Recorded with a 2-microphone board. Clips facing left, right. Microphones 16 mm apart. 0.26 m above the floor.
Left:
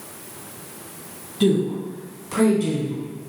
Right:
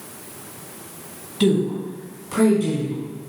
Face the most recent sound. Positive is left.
turn(degrees=25)  # may be behind; listen again after turning